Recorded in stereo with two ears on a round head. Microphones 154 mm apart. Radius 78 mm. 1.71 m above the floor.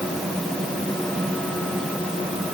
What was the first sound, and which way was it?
Only background noise.